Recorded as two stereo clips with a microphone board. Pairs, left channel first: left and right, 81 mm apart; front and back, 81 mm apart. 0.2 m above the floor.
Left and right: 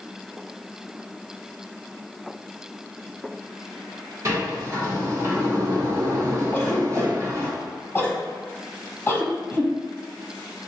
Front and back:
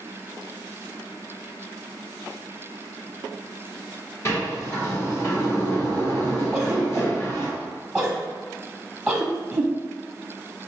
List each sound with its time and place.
4.2 s a sliding door: 45° right, 1.6 m
6.5 s a cough: 90° left, 1.0 m